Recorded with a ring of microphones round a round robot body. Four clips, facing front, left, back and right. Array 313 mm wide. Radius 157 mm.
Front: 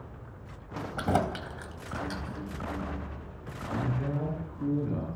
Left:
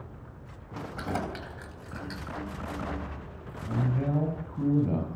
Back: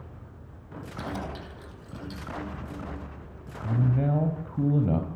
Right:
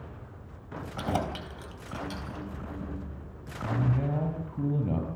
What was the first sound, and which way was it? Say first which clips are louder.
Keys jangling: right 3 dB, front 7 dB; 15° right.